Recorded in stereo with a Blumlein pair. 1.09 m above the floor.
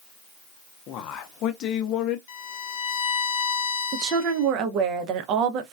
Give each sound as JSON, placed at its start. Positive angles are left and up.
{"t": 0.9, "sound": "a man speaking", "azimuth_deg": 35, "distance_m": 0.7}
{"t": 2.3, "sound": "a violin", "azimuth_deg": 55, "distance_m": 0.6}
{"t": 3.9, "sound": "a woman speaking", "azimuth_deg": -35, "distance_m": 0.6}